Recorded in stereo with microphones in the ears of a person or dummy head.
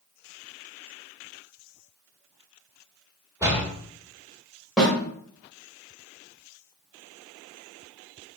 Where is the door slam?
15° right (ahead or behind), 1.0 m.